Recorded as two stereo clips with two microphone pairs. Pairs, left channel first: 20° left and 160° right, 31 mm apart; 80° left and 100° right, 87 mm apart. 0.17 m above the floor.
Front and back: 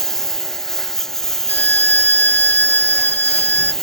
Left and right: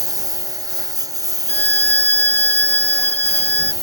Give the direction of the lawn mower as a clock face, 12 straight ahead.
2 o'clock.